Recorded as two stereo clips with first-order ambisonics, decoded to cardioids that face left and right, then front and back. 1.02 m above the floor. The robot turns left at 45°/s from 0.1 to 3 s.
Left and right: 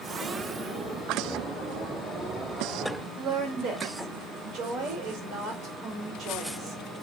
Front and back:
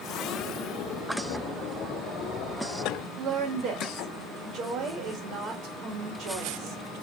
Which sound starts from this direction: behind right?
A woman speaking, at 3.2 s.